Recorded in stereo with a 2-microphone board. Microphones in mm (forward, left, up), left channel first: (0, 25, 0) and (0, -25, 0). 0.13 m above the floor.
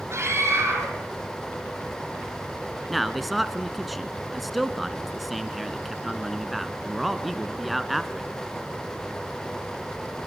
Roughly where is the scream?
Right.